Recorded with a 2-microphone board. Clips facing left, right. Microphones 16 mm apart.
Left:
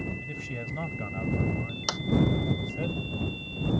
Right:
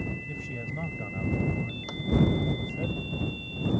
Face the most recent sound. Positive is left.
turn(degrees=70)  # may be behind; listen again after turning